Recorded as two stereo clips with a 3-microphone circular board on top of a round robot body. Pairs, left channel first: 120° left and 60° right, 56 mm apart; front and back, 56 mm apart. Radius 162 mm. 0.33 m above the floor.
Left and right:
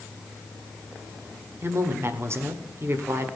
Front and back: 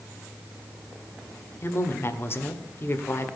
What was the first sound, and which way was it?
A woman speaking, 30° right.